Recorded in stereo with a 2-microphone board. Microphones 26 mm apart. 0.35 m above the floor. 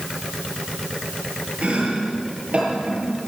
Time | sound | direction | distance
1.6 | chopping | 50° right (ahead or behind) | 10 m